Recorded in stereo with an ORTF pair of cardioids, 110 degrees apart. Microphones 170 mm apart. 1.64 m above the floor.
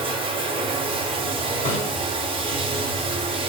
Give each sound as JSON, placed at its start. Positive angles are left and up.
{"t": 0.0, "sound": "running water", "azimuth_deg": -30, "distance_m": 1.0}
{"t": 1.6, "sound": "a snare drum", "azimuth_deg": 40, "distance_m": 1.8}